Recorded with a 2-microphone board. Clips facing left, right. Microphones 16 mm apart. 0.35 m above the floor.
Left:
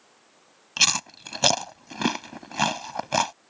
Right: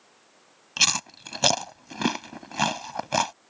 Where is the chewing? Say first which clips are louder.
Left 1 dB; 5° left (ahead or behind).